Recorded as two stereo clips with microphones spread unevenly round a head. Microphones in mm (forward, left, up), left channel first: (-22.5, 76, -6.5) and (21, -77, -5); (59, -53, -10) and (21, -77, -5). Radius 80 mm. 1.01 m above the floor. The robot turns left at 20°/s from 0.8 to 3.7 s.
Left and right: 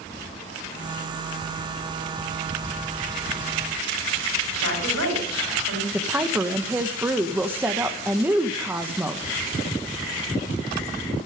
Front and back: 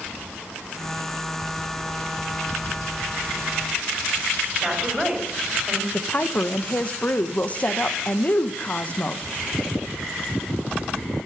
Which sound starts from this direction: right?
A woman speaking, at 4.6 s.